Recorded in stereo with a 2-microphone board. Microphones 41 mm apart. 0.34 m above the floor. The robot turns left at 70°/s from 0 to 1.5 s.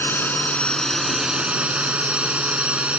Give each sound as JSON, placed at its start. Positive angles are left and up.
{"t": 0.0, "sound": "a drone", "azimuth_deg": 75}